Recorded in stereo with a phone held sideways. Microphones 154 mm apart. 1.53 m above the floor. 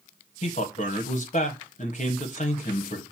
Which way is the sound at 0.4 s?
55° left (ahead or behind).